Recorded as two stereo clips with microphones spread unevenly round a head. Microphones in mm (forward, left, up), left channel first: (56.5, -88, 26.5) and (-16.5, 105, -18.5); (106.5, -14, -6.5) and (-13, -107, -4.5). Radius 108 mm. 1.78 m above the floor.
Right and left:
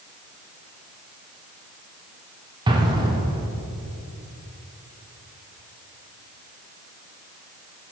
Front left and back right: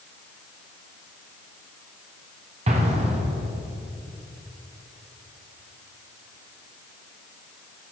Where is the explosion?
175° right, 0.7 m.